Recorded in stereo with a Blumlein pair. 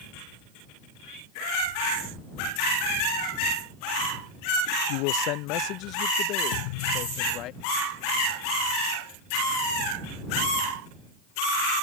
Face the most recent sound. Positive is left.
turn(degrees=45)